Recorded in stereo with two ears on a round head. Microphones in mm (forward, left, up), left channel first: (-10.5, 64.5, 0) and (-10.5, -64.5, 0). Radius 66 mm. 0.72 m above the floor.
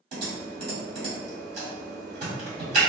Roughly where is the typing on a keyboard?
Right.